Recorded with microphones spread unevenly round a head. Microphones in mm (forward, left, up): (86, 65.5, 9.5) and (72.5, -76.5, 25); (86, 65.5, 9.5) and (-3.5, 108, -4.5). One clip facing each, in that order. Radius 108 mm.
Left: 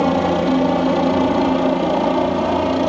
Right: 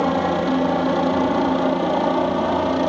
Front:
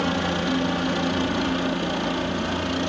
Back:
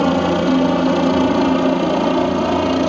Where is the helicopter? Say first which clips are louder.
Left 3 dB, back 9 dB; 160° left; by 2.9 s 165° left.